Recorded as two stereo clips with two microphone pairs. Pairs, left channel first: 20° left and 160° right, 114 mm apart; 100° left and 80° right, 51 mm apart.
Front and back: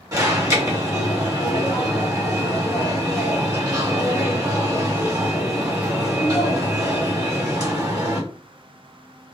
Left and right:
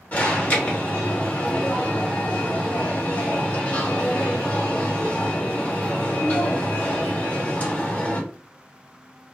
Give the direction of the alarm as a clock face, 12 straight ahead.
7 o'clock.